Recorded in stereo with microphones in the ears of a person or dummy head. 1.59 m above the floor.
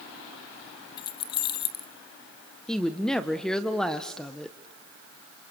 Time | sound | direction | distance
1.0 | keys jangling | 25° left (ahead or behind) | 0.6 m
2.7 | a woman speaking | centre (ahead or behind) | 1.1 m